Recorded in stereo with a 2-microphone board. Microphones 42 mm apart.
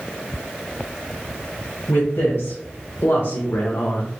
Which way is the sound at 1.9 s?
75° left (ahead or behind).